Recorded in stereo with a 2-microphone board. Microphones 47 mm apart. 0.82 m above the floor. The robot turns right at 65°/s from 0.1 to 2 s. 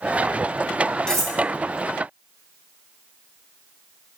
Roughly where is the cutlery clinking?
Centre.